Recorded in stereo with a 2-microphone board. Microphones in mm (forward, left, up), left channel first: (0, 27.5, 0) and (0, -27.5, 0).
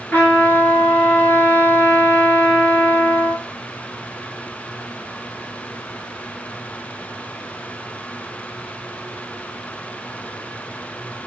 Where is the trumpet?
35° left (ahead or behind), 1.6 m.